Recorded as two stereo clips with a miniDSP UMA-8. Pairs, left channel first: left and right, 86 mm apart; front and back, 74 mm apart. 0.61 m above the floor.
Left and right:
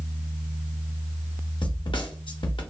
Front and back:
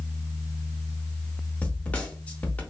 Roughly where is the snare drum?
Left.